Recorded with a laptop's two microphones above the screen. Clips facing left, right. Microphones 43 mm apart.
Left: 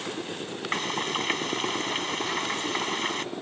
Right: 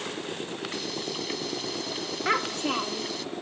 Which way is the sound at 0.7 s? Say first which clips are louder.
Left 10 dB; 50° left (ahead or behind).